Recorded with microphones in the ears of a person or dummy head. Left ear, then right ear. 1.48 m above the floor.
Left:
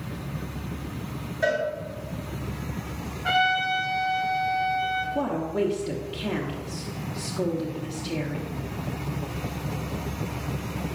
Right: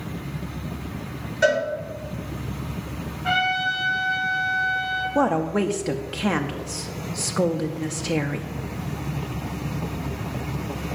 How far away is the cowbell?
About 3 m.